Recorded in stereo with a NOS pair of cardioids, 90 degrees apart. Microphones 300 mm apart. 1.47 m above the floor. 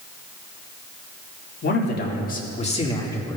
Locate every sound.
1.6 s a man speaking: 40° left, 2.5 m; by 3.4 s 10° left, 2 m